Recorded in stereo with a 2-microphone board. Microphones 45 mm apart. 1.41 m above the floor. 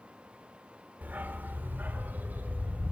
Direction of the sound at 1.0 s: 40° right (ahead or behind).